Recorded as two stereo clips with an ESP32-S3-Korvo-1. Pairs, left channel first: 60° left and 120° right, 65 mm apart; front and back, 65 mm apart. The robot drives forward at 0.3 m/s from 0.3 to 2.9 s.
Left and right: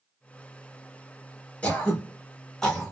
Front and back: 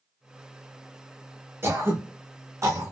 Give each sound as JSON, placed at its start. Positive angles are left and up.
{"t": 1.6, "sound": "throat clearing", "azimuth_deg": 130, "distance_m": 1.2}